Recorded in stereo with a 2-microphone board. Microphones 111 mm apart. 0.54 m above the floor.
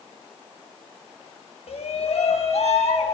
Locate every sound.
1.7 s a shout: 75° left (ahead or behind), 3 m